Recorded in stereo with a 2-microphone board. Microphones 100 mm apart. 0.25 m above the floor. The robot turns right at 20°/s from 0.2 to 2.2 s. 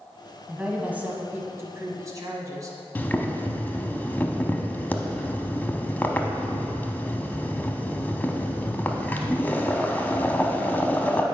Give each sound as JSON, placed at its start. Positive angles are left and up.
{"t": 0.5, "sound": "a woman speaking", "azimuth_deg": -165, "distance_m": 1.4}
{"t": 3.0, "sound": "boiling", "side_deg": 20, "distance_m": 0.7}